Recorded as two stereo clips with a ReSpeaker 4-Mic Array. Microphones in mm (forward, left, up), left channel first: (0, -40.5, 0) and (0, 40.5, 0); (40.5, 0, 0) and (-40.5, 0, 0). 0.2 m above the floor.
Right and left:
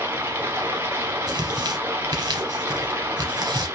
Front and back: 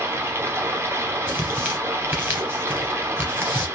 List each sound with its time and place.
0.0 s running water: 140° left, 0.9 m
1.3 s tearing paper: 120° left, 1.1 m